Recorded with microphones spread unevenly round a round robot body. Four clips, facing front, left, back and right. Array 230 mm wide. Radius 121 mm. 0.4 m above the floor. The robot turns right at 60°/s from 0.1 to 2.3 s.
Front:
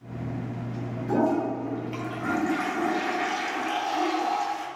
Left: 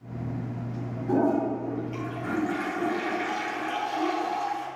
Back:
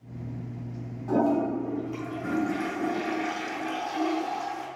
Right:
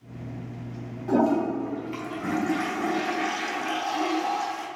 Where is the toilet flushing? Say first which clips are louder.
Right 2 dB, even; 100° right, 4 m; by 4.7 s 25° right, 4 m.